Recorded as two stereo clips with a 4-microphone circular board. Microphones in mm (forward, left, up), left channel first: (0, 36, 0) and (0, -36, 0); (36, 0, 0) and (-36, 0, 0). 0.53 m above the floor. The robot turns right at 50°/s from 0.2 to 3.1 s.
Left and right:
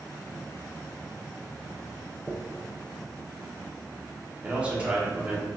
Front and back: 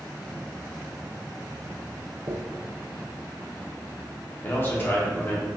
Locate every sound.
2.3 s a dropped coin: 170° right, 0.6 m; by 2.4 s 165° right, 0.6 m
4.4 s a man speaking: 30° right, 0.8 m